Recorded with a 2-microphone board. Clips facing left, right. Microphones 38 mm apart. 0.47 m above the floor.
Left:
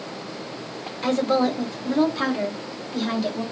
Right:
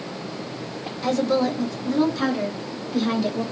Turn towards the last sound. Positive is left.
turn(degrees=0)  # may be behind; listen again after turning